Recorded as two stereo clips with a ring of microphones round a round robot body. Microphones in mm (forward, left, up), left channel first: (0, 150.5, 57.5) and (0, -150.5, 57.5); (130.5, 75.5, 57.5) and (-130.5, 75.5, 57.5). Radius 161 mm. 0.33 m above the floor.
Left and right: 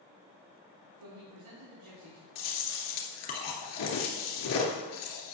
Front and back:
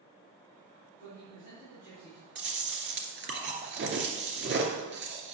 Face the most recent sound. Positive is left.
turn(degrees=130)